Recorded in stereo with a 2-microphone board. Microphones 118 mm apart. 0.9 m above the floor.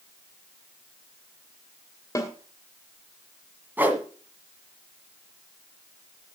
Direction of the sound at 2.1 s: 25° left (ahead or behind).